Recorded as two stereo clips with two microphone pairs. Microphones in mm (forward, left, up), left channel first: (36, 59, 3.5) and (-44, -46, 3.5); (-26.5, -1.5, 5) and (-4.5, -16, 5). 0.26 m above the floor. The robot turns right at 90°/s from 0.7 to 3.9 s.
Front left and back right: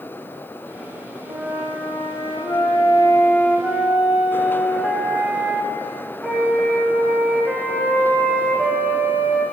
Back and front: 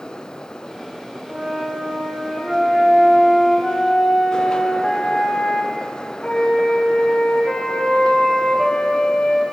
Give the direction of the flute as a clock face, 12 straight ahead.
3 o'clock.